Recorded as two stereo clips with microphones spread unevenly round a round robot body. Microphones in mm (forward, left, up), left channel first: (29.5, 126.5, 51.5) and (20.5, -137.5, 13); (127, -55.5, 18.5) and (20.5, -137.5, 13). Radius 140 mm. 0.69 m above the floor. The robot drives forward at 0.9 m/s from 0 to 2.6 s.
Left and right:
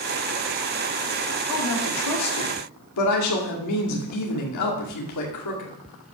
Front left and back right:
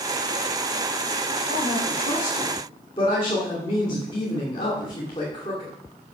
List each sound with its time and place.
1.5 s a woman speaking: 70° left, 2 m; by 5.7 s 100° left, 2 m